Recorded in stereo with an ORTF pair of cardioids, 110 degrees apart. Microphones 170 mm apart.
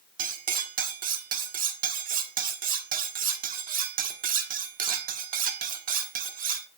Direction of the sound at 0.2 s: 60° right.